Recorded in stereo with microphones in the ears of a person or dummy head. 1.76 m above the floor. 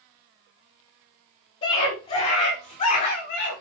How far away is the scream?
About 6.5 m.